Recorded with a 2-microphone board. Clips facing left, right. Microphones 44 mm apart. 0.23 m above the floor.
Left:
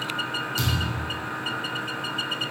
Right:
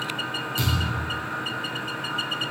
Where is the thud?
20° right (ahead or behind), 4.5 m.